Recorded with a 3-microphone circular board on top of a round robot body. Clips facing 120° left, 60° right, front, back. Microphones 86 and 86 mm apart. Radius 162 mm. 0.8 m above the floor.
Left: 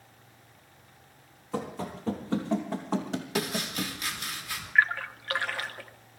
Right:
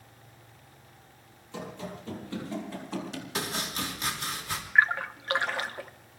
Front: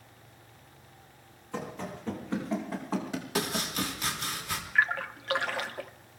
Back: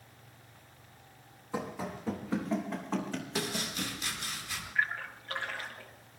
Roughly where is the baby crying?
No baby crying in this recording.